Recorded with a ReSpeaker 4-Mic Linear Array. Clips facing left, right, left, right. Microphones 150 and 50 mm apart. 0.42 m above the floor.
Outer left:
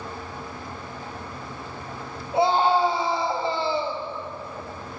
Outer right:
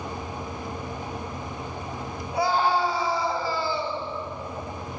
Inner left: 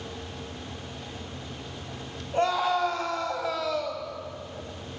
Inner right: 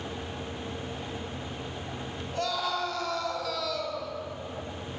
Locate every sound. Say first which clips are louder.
2.3 s a scream: outer left 3 dB, inner left 6 dB; 25° left (ahead or behind), 3.5 m